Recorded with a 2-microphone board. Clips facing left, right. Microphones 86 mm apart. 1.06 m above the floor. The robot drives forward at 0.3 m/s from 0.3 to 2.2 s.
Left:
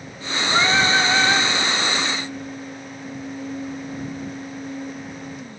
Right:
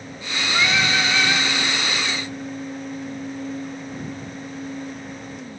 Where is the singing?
35° left (ahead or behind), 1.6 m; by 1.5 s 40° left (ahead or behind), 1.4 m.